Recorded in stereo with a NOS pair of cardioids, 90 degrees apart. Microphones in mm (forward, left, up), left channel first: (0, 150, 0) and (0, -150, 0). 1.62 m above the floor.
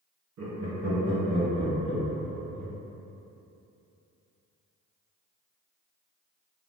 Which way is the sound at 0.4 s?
65° right.